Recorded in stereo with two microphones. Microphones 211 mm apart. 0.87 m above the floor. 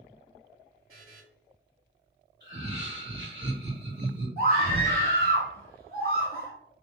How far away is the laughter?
About 1.5 m.